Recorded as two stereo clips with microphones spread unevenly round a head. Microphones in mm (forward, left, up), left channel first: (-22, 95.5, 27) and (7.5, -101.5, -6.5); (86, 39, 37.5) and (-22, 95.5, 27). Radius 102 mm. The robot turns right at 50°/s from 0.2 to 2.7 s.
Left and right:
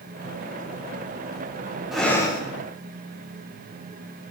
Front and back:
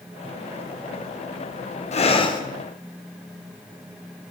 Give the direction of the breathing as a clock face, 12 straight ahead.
12 o'clock.